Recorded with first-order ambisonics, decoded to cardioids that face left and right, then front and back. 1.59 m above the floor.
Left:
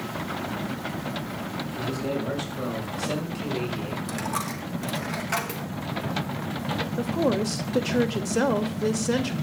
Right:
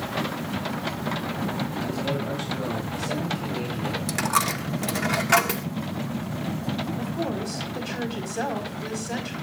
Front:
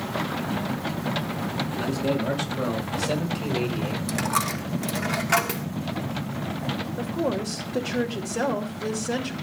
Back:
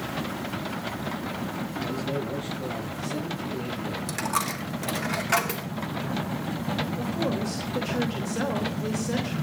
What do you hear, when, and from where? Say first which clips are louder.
1.8 s a man speaking: left 2 dB, front 4 dB; 20° left, 6.5 m; by 4.0 s 25° left, 5 m
4.1 s a dropped coin: right 8 dB, front 2 dB; 80° right, 0.9 m
7.0 s a woman speaking: left 5 dB, front 2 dB; 75° left, 2.5 m